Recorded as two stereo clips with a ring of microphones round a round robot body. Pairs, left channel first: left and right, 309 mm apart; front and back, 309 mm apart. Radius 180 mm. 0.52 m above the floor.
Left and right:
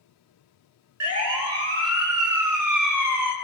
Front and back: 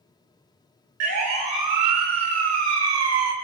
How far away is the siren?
About 7 m.